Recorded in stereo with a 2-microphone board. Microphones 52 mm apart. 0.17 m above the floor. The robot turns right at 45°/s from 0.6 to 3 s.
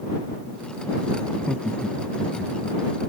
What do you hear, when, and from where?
1.3 s laughter: 25° left (ahead or behind); by 2.8 s 40° right (ahead or behind)